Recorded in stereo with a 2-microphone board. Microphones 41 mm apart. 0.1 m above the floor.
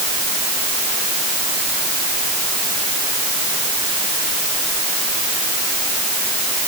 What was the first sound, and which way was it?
Only background noise.